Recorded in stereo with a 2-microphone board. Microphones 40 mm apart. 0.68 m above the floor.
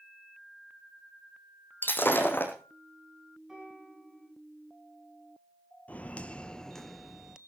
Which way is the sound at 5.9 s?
35° left (ahead or behind).